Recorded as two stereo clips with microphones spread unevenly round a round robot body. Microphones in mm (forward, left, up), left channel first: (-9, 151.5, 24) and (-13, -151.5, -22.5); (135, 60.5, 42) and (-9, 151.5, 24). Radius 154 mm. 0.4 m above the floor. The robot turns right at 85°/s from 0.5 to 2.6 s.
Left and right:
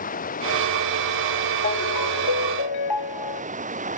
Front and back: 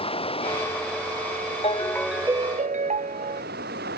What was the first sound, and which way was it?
Running water, 25° left.